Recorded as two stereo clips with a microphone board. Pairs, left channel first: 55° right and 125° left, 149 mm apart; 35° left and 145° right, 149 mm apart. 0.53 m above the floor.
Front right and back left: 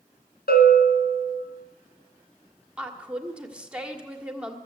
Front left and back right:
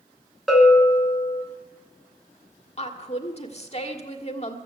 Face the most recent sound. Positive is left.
turn(degrees=45)